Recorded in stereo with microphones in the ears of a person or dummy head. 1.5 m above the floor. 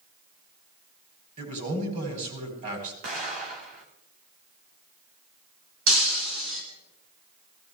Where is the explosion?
45° right (ahead or behind), 3 m.